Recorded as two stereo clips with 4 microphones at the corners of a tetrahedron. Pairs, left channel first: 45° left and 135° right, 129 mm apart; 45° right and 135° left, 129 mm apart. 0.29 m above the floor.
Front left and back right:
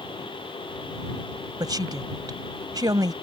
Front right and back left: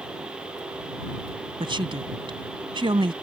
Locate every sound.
1.6 s a woman speaking: 175° left